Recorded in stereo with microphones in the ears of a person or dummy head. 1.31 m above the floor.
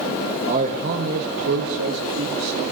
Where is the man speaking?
35° right (ahead or behind), 1.1 m; by 2.7 s 85° right, 2 m.